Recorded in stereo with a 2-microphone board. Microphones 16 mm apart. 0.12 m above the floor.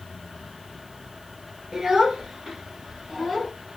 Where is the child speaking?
45° right (ahead or behind), 1.4 m; by 3.5 s 20° right (ahead or behind), 1.2 m.